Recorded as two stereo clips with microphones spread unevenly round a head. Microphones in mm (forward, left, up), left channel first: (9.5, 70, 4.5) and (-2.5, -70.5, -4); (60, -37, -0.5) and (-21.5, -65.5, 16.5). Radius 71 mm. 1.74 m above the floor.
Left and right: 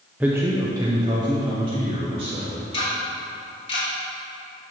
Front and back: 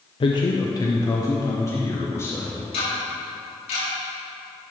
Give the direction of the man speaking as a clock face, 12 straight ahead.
12 o'clock.